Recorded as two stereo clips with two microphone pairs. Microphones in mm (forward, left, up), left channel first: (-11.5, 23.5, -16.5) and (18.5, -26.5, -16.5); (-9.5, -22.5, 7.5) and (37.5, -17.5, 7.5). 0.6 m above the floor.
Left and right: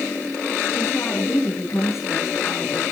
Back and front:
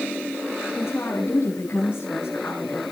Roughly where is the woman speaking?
Behind.